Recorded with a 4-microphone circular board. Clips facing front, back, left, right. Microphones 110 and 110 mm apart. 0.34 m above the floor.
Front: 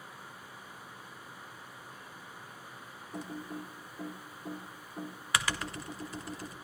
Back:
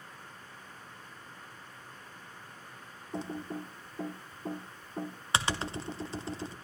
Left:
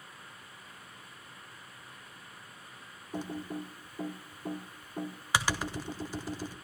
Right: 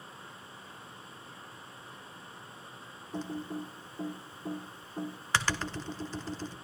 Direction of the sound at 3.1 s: 155° left.